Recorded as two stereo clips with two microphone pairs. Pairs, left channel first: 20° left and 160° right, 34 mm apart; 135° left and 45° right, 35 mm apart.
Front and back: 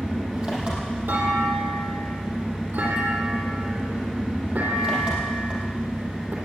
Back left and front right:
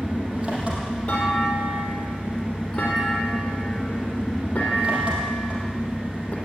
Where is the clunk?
165° right, 3.5 m.